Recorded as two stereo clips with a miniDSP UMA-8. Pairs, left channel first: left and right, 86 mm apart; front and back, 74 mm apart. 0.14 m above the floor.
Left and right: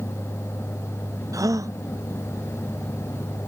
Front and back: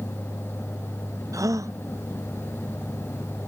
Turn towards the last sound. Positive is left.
turn(degrees=-135)